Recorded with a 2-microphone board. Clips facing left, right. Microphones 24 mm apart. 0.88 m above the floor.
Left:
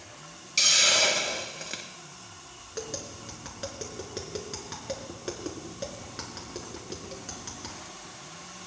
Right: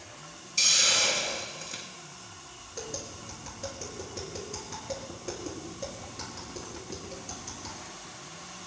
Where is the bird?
No bird in this recording.